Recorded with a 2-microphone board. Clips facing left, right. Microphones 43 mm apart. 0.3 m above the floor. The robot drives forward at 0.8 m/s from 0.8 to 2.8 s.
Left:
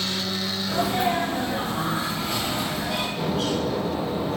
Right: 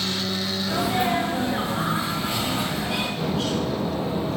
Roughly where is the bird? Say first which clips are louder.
Even; centre.